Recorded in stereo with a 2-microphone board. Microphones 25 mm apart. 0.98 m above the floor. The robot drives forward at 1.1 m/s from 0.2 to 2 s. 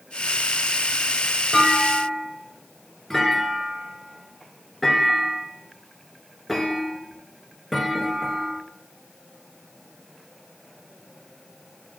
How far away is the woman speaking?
I don't hear a woman speaking.